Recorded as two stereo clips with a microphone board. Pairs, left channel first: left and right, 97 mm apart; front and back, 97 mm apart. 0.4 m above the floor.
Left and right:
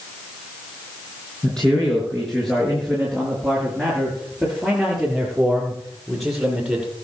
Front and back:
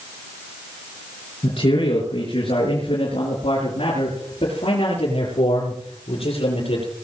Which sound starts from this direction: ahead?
A man speaking, at 1.4 s.